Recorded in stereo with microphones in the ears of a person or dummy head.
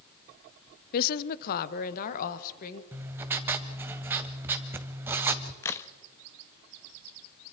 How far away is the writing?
About 1.5 m.